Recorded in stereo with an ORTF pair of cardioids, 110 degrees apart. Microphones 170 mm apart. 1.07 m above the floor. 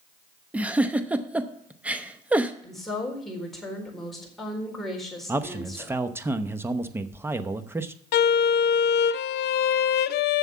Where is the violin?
65° left, 0.6 m.